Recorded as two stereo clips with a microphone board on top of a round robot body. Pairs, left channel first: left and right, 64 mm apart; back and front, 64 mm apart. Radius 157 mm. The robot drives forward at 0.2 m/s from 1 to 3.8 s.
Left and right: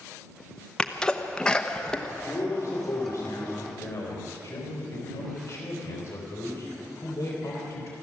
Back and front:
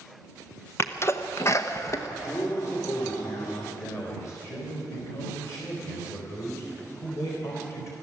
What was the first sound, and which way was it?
A sneeze, 160° left.